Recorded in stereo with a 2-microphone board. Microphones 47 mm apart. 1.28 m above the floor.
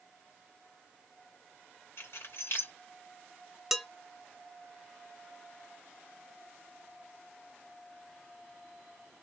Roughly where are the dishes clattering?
Centre.